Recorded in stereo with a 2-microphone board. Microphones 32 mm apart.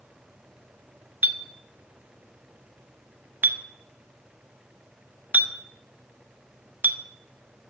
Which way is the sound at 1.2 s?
60° right (ahead or behind).